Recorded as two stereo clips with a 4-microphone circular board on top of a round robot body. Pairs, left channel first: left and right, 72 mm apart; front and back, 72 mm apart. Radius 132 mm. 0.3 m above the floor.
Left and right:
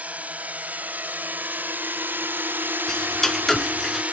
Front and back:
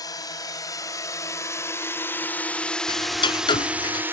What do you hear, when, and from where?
0.0 s a drone: 20° right; by 4.1 s 145° right
2.9 s ticking: 5° left